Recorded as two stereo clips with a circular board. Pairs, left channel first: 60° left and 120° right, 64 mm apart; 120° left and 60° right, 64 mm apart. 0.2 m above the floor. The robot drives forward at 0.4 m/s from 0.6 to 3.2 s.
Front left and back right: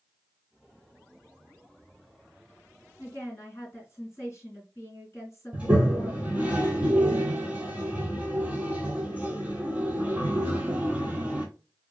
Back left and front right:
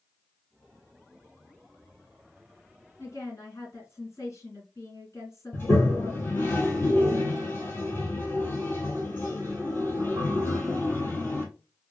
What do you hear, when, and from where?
3.0 s a woman speaking: 100° left, 2.5 m
5.5 s a toilet flushing: 175° left, 1.0 m